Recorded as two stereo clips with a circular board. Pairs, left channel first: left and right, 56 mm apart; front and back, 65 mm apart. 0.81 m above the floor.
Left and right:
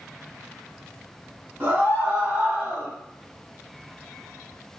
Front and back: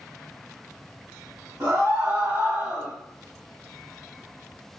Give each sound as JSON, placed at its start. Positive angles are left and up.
{"t": 1.6, "sound": "a scream", "azimuth_deg": -140, "distance_m": 1.6}